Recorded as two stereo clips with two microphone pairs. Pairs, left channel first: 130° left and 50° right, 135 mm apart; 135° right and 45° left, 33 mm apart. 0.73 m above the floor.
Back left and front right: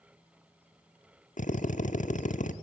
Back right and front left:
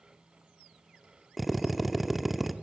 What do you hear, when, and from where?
1.4 s a drill: 130° left, 0.9 m